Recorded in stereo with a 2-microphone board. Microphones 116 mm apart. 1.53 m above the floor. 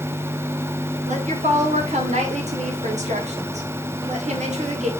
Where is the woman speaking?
80° right, 2.5 m.